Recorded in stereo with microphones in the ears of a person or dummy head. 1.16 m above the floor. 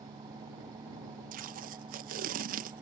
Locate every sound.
0.0 s an engine running: 20° right (ahead or behind)
1.3 s tape being pulled: 50° right (ahead or behind)